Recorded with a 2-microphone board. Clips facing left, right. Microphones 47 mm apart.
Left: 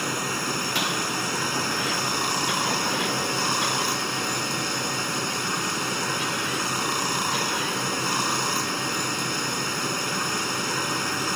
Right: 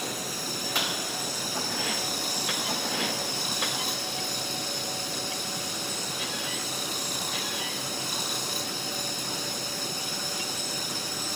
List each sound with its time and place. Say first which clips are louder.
0.0 s running water: left 7 dB; 60° left (ahead or behind)